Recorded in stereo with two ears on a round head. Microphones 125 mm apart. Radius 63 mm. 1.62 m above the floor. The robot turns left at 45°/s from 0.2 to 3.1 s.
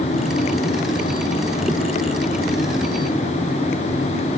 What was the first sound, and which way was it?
Only background noise.